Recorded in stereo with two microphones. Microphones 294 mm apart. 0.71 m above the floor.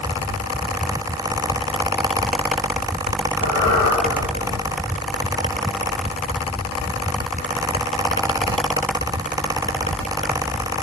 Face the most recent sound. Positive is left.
turn(degrees=55)  # may be behind; listen again after turning